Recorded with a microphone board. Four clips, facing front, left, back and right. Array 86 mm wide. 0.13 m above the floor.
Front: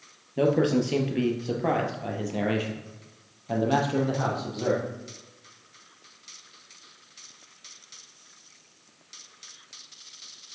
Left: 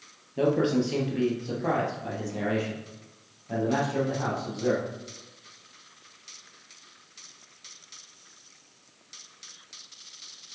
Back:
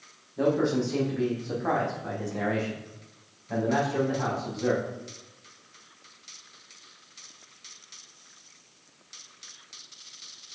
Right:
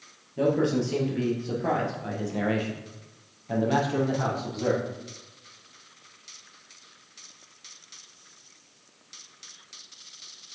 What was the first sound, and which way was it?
A man speaking, 15° left.